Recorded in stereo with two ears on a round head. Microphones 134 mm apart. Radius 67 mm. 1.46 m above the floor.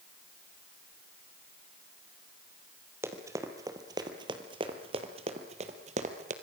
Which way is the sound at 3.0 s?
15° right (ahead or behind).